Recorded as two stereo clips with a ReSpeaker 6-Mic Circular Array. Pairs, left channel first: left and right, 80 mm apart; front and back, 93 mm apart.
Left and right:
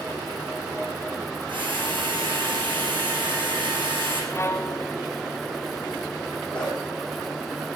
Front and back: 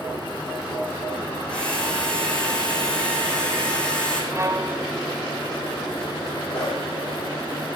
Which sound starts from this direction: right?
A drill, at 1.5 s.